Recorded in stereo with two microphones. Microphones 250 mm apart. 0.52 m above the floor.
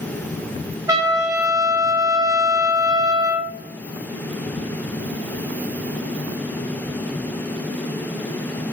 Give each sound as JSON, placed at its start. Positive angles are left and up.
{"t": 0.9, "sound": "a trumpet", "side_deg": -15, "distance_m": 0.5}